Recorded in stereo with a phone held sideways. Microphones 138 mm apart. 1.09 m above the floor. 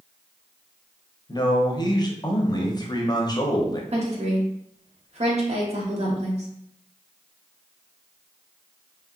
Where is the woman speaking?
50° right (ahead or behind), 0.6 m.